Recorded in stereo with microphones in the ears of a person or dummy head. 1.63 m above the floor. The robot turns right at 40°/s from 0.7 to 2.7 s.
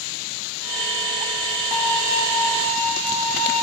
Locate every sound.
1.7 s a violin: 160° right, 1.5 m; by 3.6 s 120° right, 1.5 m